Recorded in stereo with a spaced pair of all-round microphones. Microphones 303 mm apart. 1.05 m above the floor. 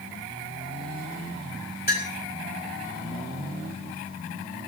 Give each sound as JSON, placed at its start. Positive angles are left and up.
{"t": 1.9, "sound": "a clink", "side_deg": 30, "distance_m": 3.0}